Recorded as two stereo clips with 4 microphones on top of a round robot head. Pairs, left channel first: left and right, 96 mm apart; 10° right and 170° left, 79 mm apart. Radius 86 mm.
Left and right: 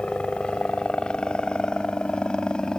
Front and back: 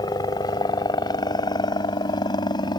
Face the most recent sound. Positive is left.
turn(degrees=5)